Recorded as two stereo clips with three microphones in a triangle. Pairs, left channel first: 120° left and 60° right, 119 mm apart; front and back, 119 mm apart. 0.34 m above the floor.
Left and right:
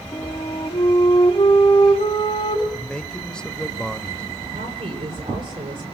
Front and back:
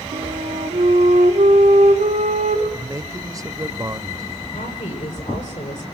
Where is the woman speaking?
15° right, 8.5 m.